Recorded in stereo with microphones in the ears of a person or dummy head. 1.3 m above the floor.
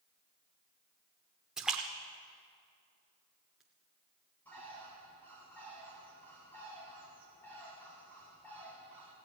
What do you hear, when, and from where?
1.6 s a splash: centre (ahead or behind), 1.1 m
4.5 s a bird: 10° left (ahead or behind), 4.5 m